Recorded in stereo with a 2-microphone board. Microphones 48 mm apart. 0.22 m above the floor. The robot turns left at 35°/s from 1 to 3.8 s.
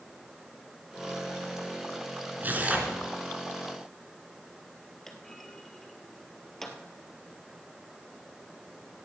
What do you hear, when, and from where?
2.4 s tearing paper: 35° right (ahead or behind), 2.5 m; by 3.0 s 20° right (ahead or behind), 2.5 m
5.1 s a clunk: 10° left (ahead or behind), 1.6 m